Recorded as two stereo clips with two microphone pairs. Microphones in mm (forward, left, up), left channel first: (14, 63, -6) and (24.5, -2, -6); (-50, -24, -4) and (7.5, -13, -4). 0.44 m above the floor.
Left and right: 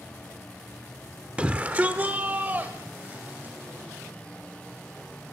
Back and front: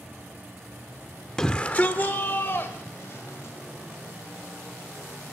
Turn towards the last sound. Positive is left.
turn(degrees=-140)